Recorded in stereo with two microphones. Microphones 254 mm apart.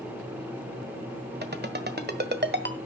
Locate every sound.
1.4 s a ringtone: 40° right (ahead or behind), 1.5 m